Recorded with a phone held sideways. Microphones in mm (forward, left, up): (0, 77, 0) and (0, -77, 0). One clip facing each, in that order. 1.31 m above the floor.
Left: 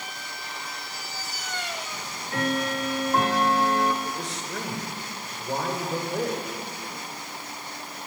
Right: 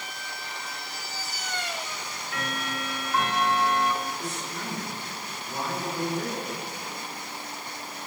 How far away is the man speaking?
About 5.5 m.